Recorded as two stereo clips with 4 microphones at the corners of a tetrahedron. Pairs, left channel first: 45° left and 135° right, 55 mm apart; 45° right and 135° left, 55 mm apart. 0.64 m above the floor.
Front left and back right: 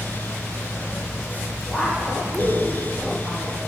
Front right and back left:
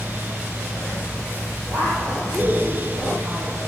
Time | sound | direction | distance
1.7 | a woman speaking | 130° left | 3.5 m